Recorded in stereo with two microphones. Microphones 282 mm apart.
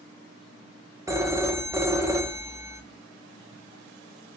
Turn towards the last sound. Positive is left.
turn(degrees=-10)  # may be behind; listen again after turning